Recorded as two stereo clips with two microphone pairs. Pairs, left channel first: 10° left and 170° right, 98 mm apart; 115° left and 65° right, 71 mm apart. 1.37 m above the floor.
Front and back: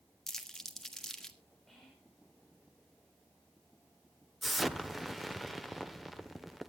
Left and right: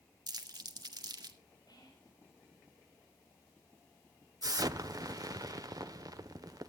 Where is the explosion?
80° right, 0.9 m.